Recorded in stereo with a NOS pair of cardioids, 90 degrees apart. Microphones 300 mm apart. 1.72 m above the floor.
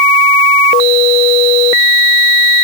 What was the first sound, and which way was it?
Only background noise.